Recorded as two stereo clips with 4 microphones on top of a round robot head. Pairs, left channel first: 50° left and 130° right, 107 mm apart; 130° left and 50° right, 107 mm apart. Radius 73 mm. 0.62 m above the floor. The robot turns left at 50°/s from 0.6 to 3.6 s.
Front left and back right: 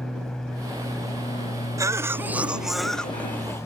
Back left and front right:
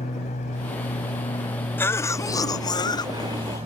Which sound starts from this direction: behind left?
An aircraft, at 0.0 s.